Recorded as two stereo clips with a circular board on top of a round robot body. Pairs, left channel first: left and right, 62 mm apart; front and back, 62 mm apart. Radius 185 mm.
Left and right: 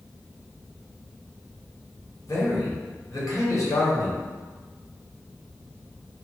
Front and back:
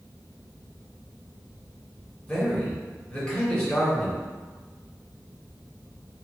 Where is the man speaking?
70° left, 1.5 m.